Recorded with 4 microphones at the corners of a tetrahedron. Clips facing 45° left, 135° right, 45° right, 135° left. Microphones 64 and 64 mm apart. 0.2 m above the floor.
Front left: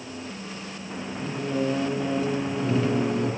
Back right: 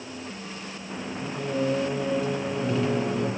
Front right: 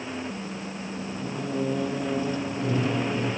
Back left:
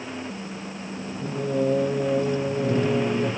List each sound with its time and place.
1.2 s singing: 135° left, 2.5 m